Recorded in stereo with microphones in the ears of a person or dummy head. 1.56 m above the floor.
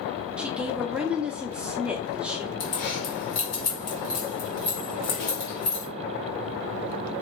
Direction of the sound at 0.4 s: 5° right (ahead or behind).